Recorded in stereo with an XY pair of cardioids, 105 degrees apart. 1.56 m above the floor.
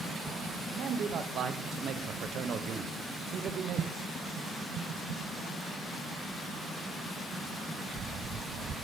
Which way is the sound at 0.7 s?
60° right.